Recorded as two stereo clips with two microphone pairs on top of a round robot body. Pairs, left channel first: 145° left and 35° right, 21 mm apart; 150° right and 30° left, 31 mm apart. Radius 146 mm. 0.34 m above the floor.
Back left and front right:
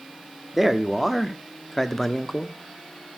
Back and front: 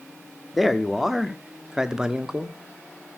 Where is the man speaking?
125° right, 1.3 m; by 2.6 s 105° left, 1.4 m.